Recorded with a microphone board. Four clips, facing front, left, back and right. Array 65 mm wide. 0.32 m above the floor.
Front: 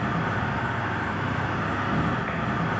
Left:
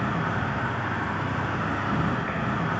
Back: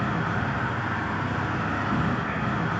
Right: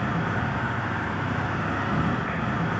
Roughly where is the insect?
Ahead.